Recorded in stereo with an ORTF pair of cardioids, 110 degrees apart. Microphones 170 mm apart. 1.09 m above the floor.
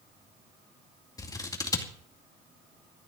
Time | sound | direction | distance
1.2 | scissors | 20° left | 2 m